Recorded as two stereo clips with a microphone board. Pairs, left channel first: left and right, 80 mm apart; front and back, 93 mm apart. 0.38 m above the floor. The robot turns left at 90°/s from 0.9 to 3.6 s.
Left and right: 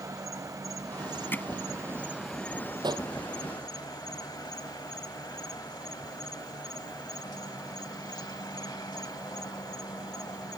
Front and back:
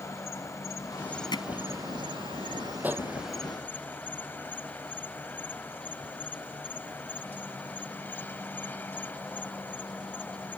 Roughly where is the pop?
Right.